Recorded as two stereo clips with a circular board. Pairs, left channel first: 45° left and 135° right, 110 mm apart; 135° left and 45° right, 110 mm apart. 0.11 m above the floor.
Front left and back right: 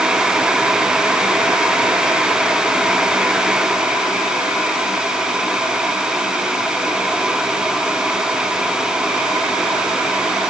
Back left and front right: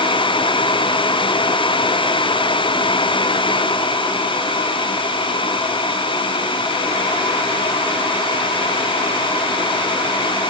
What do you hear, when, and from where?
Only background noise.